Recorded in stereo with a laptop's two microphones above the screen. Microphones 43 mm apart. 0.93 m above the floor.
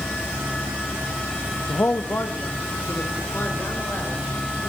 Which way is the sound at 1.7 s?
60° left (ahead or behind).